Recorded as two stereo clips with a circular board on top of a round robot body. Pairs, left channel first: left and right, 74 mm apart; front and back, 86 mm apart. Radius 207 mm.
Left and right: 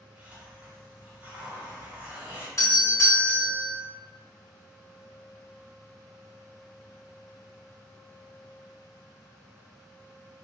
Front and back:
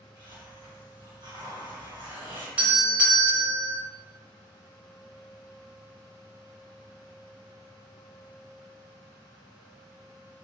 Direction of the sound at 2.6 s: 115° left.